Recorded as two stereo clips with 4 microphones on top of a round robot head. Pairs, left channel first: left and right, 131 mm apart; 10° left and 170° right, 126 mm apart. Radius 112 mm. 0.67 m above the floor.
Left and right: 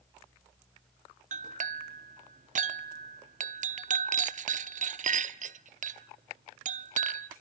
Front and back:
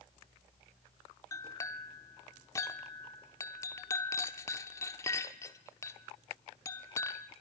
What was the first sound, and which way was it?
A clink, 65° right.